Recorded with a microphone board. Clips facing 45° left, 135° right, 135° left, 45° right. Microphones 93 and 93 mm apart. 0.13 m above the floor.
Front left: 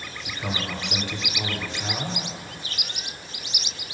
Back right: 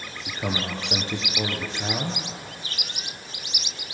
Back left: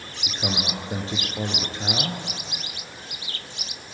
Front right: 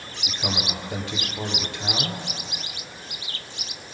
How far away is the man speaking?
About 2.5 m.